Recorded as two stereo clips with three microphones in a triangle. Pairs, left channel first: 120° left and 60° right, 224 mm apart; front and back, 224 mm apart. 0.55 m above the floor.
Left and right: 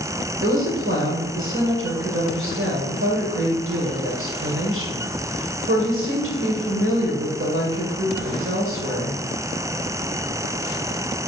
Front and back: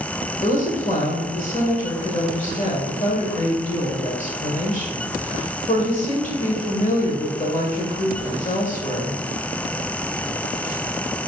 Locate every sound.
0.4 s a woman speaking: 50° right, 1.8 m